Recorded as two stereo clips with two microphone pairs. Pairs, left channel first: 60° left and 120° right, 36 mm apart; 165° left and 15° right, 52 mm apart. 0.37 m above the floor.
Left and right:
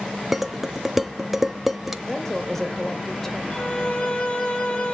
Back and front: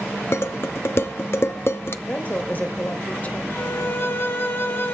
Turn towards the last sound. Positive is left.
turn(degrees=115)